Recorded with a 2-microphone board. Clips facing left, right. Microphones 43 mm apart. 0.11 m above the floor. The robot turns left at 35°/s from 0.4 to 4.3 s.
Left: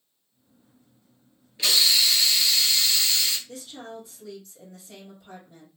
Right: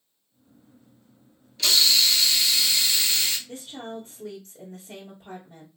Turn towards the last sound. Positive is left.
turn(degrees=-40)  # may be behind; listen again after turning